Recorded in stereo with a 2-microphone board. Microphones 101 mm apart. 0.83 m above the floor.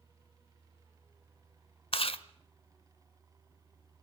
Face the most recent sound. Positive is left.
turn(degrees=65)  # may be behind; listen again after turning